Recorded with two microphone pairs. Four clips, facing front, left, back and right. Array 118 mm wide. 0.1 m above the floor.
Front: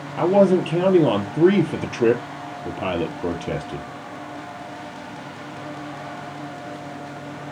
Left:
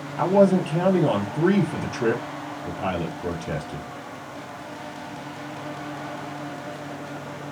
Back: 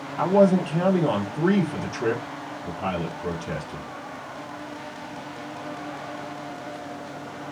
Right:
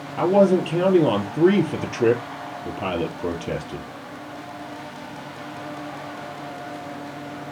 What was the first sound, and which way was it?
A man speaking, 30° right.